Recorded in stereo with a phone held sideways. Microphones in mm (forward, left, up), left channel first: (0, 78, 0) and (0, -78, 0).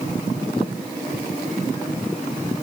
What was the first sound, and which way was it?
Only background noise.